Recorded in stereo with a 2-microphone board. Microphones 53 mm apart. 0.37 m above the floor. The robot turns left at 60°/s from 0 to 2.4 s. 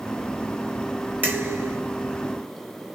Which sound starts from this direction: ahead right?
Dishes clattering, at 1.2 s.